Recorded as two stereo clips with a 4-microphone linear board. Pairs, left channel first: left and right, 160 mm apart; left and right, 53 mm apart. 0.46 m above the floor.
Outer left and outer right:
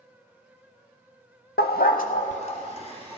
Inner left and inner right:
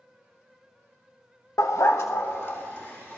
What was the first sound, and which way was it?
A dog barking, 85° left.